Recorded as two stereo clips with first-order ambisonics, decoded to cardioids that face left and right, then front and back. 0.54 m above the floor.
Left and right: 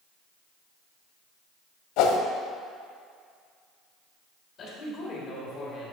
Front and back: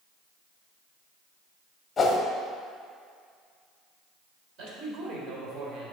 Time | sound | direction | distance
2.0 | a whoosh | 75° left | 0.7 m
4.6 | a man speaking | 145° left | 1.7 m